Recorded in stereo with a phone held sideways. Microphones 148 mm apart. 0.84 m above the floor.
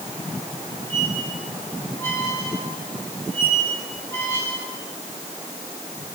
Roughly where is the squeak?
Centre.